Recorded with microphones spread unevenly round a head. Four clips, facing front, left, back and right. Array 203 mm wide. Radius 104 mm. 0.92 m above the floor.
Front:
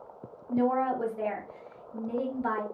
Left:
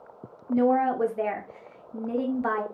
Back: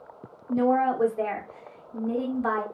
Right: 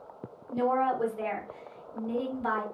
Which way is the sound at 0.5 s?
135° left.